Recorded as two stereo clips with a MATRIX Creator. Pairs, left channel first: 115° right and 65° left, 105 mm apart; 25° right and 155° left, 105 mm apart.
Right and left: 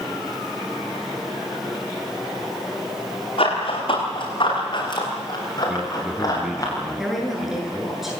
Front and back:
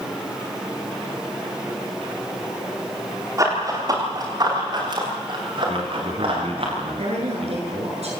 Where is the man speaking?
150° left, 4 m.